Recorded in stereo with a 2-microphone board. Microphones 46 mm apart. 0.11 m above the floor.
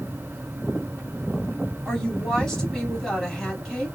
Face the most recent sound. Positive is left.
turn(degrees=10)  # may be behind; listen again after turning